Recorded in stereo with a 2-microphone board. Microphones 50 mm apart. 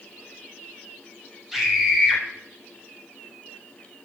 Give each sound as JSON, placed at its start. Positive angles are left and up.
{"t": 1.5, "sound": "a scream", "side_deg": -5, "distance_m": 4.0}